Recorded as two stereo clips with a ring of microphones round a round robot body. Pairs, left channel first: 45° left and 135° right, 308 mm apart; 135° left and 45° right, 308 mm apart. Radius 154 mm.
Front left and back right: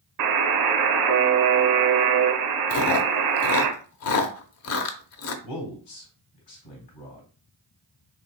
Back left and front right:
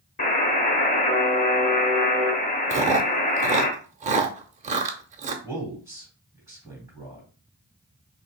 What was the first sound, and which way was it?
A buzzer, 160° right.